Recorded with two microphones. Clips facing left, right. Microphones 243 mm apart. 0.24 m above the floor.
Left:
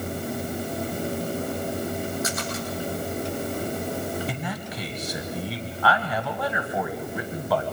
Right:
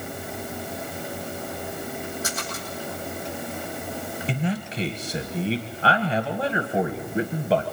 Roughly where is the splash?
Right.